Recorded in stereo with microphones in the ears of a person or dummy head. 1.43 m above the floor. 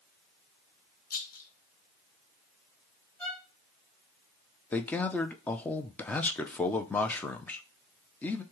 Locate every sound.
1.1 s a rattle: 55° left (ahead or behind), 0.8 m
3.2 s a violin: 15° left (ahead or behind), 2.5 m
4.7 s a man speaking: 10° left (ahead or behind), 0.6 m